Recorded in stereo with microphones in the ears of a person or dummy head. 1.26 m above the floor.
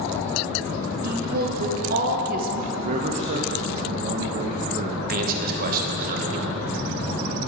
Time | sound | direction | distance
1.0 | a woman speaking | 45° right (ahead or behind) | 0.8 m
2.7 | a man speaking | 35° right (ahead or behind) | 0.6 m
5.1 | a man speaking | 45° right (ahead or behind) | 1.3 m